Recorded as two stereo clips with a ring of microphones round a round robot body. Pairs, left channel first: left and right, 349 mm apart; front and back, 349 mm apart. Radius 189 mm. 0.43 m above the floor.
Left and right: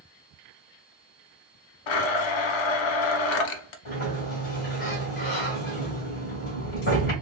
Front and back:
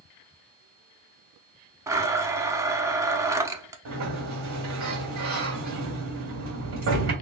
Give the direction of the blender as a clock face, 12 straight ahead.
9 o'clock.